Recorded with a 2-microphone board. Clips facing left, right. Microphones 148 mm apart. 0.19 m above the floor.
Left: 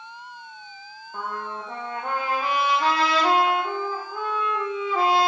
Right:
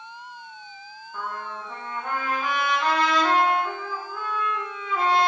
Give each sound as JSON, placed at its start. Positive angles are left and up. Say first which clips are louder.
{"t": 1.1, "sound": "a trumpet", "louder": "left 2 dB", "side_deg": 35, "distance_m": 3.0}